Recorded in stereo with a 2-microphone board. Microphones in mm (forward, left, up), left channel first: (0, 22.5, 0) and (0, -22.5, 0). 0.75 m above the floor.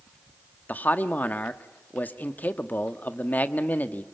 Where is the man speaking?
40° left (ahead or behind), 1.3 m.